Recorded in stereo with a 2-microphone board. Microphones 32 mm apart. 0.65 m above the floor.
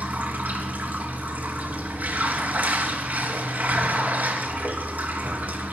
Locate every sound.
0.0 s running water: 70° right (ahead or behind), 3.5 m